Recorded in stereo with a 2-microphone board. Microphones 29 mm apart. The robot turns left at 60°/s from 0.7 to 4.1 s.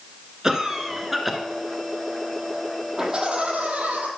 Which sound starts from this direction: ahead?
Laughter, at 3.0 s.